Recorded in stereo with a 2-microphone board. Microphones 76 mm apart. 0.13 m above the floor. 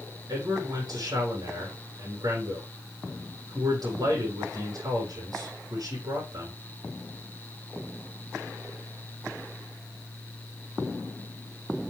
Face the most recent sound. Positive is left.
turn(degrees=-60)  # may be behind; listen again after turning